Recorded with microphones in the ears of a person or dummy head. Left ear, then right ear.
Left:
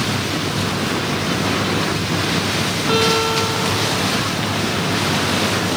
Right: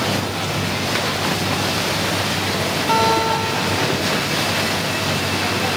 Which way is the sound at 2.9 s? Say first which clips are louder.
Even; 20° right (ahead or behind).